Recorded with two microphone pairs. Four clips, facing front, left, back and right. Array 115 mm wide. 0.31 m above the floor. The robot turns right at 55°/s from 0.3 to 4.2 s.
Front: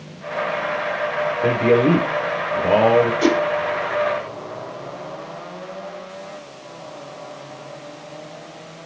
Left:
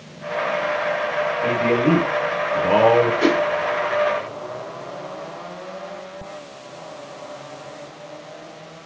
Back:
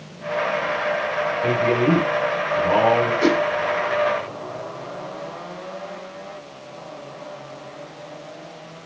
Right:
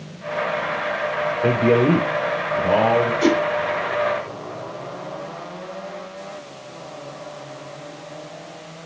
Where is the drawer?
No drawer in this recording.